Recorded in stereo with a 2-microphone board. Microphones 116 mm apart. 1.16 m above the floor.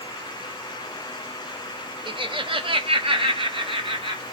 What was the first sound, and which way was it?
Laughter, 45° right (ahead or behind).